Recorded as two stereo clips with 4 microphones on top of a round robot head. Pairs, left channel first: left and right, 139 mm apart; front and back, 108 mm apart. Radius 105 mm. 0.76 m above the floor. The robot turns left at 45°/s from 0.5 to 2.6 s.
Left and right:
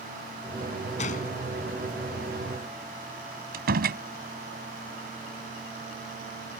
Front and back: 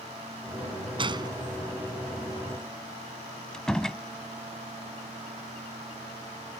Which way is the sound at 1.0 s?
140° left.